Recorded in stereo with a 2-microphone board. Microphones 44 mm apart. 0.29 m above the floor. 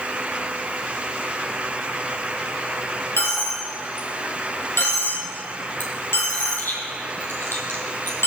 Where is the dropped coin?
65° left (ahead or behind), 3.5 m.